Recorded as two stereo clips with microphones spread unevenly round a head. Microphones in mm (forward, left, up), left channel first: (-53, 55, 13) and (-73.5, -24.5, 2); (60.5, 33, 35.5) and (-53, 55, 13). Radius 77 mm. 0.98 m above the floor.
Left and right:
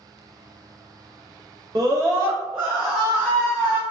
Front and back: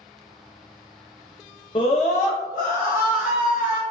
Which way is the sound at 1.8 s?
65° right.